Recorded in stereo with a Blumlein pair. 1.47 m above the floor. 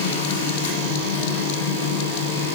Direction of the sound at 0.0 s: 60° left.